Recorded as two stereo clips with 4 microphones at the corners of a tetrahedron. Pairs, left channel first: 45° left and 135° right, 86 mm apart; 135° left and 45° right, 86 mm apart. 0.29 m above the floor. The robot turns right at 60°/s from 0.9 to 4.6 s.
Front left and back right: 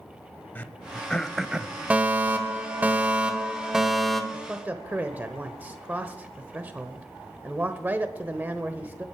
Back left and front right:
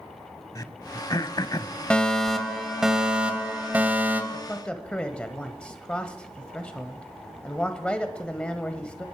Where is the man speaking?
175° left, 1.0 m; by 9.1 s 170° right, 1.0 m.